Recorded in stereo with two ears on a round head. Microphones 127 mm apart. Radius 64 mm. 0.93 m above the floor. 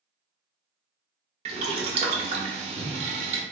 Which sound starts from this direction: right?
Boiling, at 1.4 s.